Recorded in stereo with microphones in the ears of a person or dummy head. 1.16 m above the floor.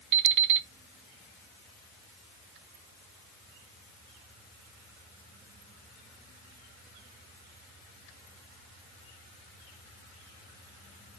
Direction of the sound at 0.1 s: 65° right (ahead or behind).